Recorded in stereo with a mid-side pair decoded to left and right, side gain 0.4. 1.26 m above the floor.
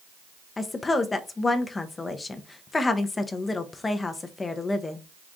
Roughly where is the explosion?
No explosion in this recording.